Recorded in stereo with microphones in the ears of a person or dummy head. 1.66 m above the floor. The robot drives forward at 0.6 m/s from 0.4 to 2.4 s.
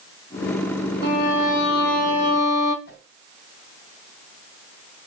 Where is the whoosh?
50° left (ahead or behind), 2 m.